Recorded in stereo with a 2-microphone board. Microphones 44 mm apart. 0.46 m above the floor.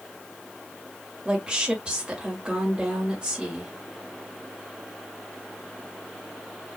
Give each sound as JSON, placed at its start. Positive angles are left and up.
{"t": 1.2, "sound": "a woman speaking", "side_deg": -20, "distance_m": 1.6}